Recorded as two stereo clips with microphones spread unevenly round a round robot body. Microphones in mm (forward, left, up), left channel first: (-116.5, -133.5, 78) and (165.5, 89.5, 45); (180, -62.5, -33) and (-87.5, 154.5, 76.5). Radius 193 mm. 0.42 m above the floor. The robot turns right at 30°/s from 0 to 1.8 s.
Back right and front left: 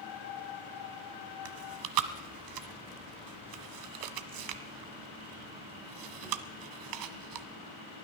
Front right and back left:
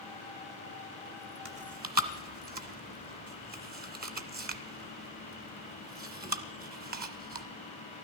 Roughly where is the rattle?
No rattle in this recording.